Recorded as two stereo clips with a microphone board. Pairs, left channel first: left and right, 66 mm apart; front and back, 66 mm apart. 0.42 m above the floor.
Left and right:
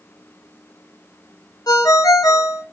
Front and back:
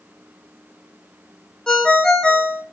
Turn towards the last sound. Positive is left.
turn(degrees=80)